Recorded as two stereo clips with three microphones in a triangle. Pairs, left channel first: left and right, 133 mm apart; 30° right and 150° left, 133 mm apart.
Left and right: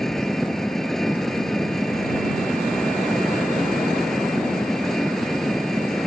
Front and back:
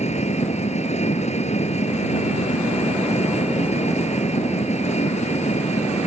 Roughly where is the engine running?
Ahead.